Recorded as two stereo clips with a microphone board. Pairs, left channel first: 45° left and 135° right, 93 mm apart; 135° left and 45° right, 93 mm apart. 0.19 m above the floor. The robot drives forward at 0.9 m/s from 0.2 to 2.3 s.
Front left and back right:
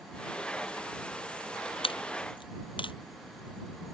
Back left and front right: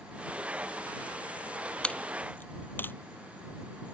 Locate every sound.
1.8 s a dropped coin: 60° left; by 2.9 s 70° left